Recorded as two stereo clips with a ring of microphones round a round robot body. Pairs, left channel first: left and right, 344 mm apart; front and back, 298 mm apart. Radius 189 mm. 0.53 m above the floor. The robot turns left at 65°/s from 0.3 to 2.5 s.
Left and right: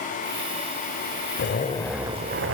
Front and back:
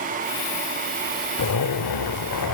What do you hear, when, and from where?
1.4 s a zipper: 35° left, 1.1 m; by 2.5 s 35° right, 1.1 m